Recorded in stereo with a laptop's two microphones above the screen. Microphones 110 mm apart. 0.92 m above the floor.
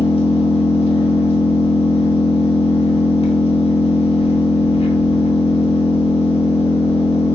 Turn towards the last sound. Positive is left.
turn(degrees=65)  # may be behind; listen again after turning